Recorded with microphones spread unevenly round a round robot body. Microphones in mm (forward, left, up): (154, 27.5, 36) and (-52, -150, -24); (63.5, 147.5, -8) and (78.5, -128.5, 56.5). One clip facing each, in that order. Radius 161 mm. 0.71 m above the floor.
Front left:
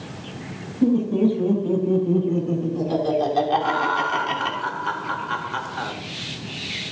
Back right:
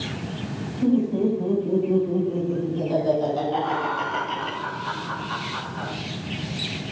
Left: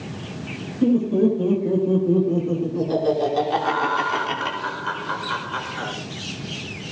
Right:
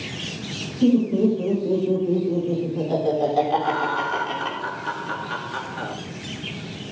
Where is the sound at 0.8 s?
10° left, 7.5 m; by 4.6 s 45° left, 5.5 m.